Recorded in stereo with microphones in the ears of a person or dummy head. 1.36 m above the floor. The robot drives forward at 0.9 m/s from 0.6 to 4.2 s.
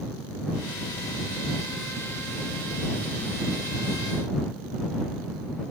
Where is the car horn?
No car horn in this recording.